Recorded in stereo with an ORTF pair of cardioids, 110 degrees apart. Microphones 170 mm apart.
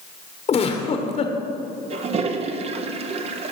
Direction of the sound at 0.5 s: 40° left.